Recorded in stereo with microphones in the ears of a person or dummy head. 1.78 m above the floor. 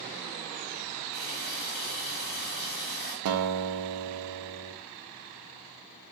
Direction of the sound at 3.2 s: 75° right (ahead or behind).